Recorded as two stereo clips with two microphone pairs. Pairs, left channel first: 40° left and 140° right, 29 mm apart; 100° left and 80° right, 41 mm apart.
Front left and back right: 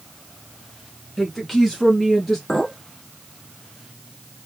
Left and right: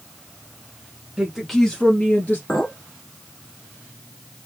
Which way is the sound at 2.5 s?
95° left.